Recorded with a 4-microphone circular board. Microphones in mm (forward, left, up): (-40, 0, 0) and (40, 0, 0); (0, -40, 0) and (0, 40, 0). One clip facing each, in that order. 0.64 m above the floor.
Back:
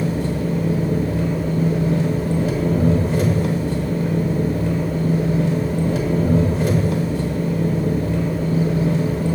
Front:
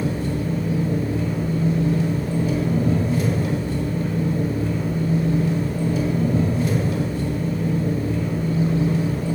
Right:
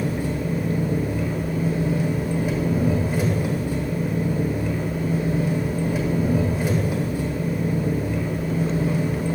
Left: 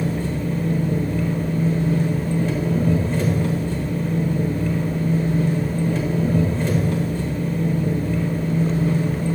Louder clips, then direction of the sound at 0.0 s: Back 2 dB, left 1 dB; 170° right.